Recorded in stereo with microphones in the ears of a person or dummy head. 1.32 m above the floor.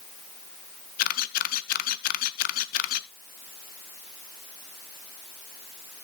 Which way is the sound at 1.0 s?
45° left (ahead or behind).